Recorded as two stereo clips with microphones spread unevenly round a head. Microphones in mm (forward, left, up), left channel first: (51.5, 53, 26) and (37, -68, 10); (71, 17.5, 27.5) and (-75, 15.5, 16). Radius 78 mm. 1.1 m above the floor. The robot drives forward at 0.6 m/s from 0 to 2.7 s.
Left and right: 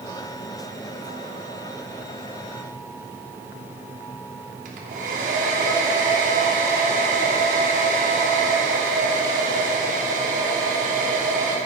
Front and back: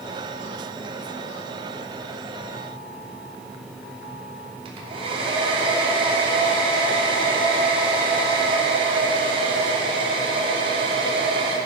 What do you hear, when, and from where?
4.7 s a hair dryer: 125° right, 3 m